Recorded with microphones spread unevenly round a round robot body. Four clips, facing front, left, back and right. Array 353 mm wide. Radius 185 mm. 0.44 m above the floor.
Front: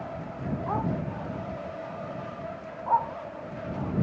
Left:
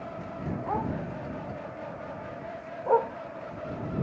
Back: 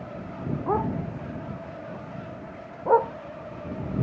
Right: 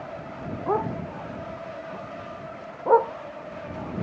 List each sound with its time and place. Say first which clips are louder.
0.7 s a dog barking: right 6 dB, back 4 dB; 150° right; by 3.1 s 135° right